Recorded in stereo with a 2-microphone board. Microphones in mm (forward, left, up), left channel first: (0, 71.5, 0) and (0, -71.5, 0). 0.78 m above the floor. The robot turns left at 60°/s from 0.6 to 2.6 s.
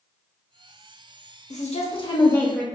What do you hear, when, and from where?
1.5 s a woman speaking: 70° left, 0.8 m; by 2.7 s 5° left, 0.8 m